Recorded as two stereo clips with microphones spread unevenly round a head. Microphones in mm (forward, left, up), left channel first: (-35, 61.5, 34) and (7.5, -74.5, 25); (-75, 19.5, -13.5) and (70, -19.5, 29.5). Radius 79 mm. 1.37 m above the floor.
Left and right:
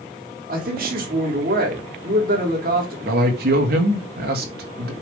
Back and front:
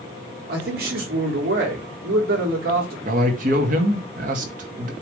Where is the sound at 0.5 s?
45° right, 4 m.